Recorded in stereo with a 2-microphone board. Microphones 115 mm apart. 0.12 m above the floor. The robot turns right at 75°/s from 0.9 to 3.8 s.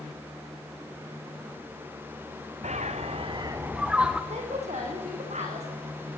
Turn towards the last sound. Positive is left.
turn(degrees=-80)